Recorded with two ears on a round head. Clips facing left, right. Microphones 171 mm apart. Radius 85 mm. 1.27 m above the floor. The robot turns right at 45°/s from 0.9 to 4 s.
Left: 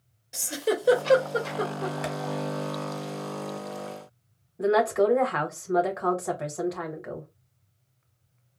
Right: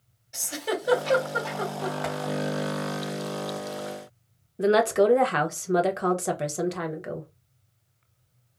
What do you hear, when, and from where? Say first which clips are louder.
0.3 s a giggle: left 3 dB; 65° left (ahead or behind), 1.6 m; by 1.9 s 30° left (ahead or behind), 1.6 m
2.0 s tapping: right 1 dB; 40° left (ahead or behind), 1.3 m
4.6 s a woman speaking: right 2 dB; 35° right (ahead or behind), 0.8 m